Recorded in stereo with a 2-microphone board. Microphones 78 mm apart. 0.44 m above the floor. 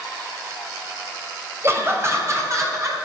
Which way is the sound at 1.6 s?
35° right (ahead or behind).